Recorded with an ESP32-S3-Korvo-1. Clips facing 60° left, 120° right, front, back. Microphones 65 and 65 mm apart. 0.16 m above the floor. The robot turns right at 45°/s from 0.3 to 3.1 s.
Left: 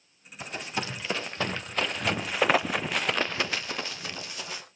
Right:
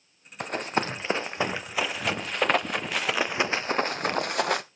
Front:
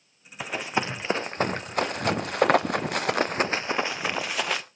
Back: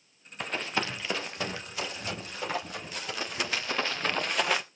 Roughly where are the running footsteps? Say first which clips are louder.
Right 6 dB, front 3 dB; right.